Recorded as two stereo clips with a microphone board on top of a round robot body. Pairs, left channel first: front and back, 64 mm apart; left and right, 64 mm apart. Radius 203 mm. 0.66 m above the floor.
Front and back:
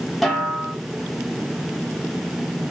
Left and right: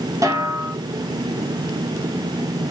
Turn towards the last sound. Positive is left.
turn(degrees=-90)